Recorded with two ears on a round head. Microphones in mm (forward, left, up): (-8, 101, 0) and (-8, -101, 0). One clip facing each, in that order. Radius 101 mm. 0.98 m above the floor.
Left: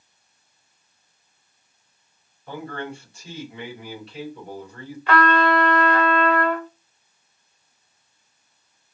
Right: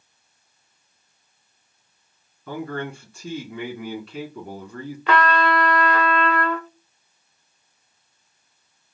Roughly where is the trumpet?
Right.